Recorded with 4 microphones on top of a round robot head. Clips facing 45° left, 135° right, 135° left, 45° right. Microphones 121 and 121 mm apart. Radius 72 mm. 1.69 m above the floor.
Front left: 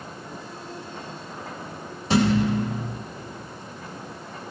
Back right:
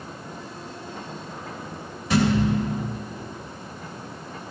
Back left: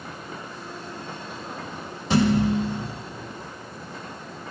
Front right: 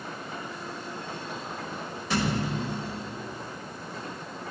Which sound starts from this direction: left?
A thud, at 2.1 s.